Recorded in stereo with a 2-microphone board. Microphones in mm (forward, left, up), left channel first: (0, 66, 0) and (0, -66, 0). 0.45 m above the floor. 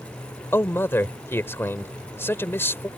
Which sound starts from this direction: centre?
A man speaking, at 0.5 s.